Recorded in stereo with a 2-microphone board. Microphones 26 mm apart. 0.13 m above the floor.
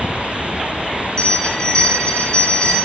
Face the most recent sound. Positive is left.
turn(degrees=30)  # may be behind; listen again after turning